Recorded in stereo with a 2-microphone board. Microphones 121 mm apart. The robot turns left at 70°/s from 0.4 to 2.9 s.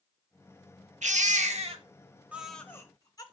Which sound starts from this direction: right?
A baby crying, at 1.0 s.